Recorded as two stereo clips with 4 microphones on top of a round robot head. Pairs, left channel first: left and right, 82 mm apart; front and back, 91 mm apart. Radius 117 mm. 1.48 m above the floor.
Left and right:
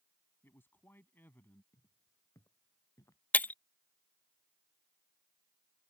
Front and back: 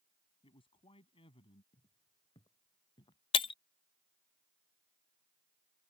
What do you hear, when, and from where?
0.4 s a man speaking: 25° left; by 1.6 s 20° left
1.7 s footsteps: 40° left; by 3.2 s 35° left
3.3 s breaking glass: 20° left